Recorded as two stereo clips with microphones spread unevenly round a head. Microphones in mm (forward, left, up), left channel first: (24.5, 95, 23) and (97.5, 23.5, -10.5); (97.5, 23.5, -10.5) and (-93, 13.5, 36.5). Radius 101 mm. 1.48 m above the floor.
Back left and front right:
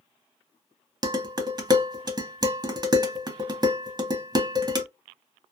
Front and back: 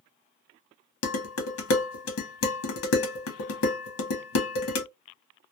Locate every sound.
1.0 s dishes clattering: 15° left, 1.0 m